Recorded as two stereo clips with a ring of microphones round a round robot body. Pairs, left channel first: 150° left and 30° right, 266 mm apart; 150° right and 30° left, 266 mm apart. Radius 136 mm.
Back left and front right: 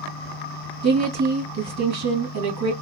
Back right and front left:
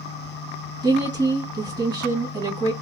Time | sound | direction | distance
0.8 | a woman speaking | 45° right | 2.5 m